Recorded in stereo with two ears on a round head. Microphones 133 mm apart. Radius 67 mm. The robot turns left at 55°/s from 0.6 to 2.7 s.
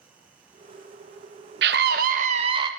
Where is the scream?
90° right, 1.2 m; by 2.7 s 150° right, 1.2 m.